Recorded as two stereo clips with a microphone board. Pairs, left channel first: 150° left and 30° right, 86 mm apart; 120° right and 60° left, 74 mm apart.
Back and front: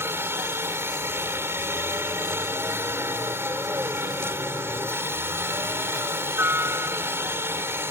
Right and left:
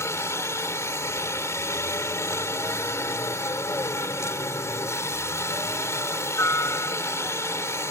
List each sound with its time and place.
0.0 s a helicopter: 80° right